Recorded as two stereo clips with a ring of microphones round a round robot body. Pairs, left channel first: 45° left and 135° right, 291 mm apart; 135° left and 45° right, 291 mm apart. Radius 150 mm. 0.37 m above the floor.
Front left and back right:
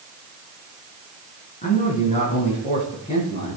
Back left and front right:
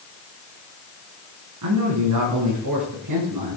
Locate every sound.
1.6 s a man speaking: 20° right, 4.5 m; by 3.6 s 25° right, 5.5 m